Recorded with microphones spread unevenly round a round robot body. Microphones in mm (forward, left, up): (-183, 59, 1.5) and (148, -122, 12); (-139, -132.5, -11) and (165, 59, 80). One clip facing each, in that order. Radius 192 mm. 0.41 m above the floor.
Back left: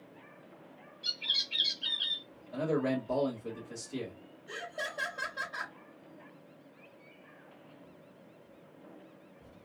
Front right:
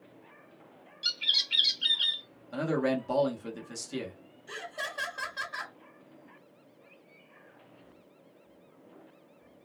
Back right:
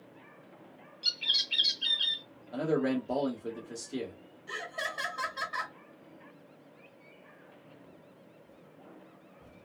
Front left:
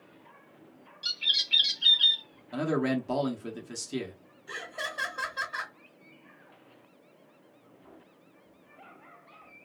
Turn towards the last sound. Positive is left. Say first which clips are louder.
# even, even
turn(degrees=-75)